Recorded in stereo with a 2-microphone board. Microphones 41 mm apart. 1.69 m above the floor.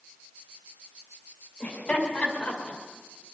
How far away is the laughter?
About 5 m.